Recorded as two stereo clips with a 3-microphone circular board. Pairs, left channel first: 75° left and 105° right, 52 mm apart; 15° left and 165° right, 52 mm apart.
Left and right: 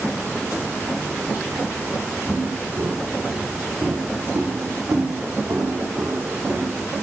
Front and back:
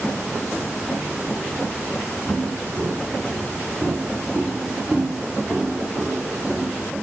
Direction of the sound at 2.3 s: 110° right.